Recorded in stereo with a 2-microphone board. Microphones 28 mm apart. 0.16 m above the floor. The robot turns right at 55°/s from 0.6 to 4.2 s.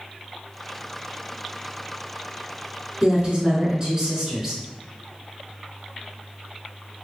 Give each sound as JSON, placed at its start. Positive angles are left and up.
{"t": 3.0, "sound": "a woman speaking", "azimuth_deg": -85, "distance_m": 2.0}